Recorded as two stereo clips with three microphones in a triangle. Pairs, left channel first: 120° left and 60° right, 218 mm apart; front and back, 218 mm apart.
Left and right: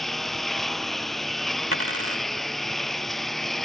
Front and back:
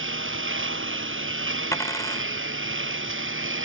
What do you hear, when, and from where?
0.0 s a lawn mower: 150° right
1.7 s a dropped coin: 75° right